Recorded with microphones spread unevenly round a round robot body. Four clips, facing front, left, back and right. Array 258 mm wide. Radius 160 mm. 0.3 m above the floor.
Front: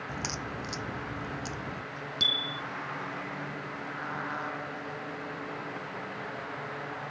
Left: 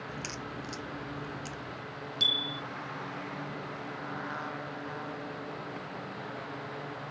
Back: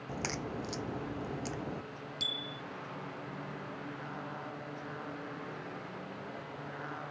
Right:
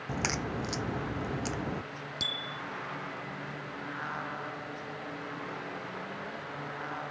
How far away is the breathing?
I don't hear breathing.